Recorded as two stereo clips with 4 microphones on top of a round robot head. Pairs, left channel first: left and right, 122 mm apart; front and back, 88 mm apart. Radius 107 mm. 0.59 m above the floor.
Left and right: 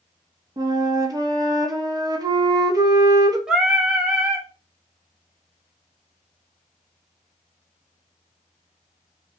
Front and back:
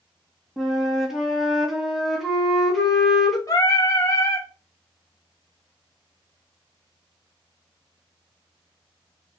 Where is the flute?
100° right, 0.7 m.